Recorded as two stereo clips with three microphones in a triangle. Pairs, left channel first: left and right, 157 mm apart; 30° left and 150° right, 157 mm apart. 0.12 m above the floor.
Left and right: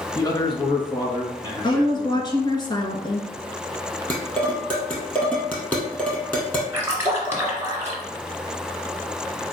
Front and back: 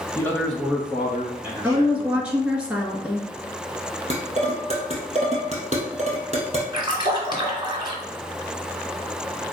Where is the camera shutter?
No camera shutter in this recording.